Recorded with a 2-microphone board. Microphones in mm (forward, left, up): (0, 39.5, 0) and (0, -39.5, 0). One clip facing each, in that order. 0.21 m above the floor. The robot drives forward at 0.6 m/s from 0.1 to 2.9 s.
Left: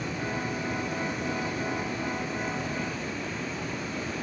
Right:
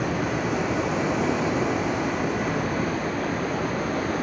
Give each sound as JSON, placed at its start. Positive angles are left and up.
{"t": 0.0, "sound": "running water", "side_deg": -65, "distance_m": 1.6}